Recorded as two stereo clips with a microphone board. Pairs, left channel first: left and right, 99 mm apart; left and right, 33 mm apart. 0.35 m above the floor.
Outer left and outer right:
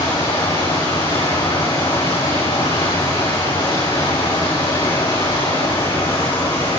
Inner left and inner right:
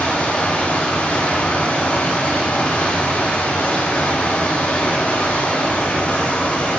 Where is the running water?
55° left (ahead or behind), 6.5 m.